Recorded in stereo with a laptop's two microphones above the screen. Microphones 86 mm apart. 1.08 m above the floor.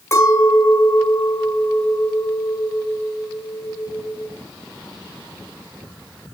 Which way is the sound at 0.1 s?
30° left (ahead or behind).